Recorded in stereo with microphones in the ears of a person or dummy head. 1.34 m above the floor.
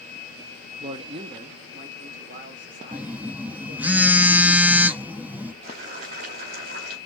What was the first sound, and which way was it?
A man speaking, 25° right (ahead or behind).